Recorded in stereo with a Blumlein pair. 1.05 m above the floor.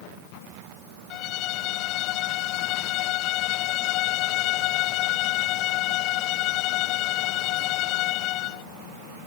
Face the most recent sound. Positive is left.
turn(degrees=40)